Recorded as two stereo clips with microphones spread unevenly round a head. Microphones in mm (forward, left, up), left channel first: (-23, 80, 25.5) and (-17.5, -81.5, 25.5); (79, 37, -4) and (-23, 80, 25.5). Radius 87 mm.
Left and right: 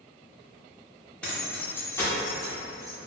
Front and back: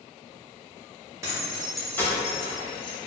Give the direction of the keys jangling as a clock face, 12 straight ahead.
6 o'clock.